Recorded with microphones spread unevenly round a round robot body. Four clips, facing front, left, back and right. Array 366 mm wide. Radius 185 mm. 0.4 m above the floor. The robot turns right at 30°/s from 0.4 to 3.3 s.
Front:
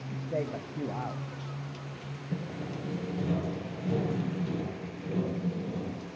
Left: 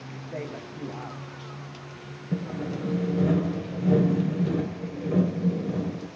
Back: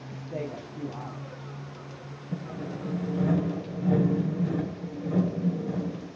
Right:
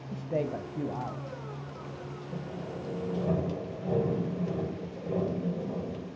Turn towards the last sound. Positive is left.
turn(degrees=125)